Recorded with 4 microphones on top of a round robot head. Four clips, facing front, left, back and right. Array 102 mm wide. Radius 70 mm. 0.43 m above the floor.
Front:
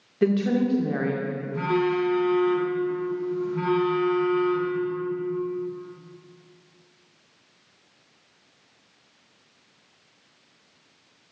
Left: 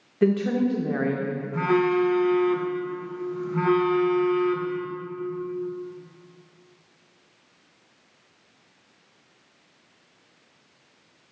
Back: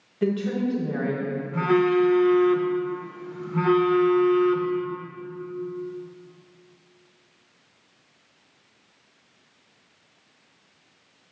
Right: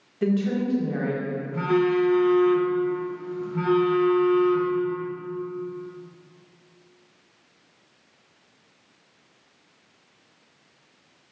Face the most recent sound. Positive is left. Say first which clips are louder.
# even, back 4 dB
turn(degrees=135)